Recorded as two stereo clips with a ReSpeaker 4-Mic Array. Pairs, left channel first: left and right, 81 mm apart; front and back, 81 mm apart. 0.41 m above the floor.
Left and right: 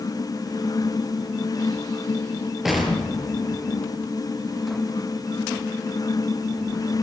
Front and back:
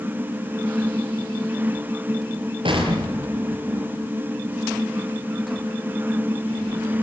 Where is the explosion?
175° right, 6 m.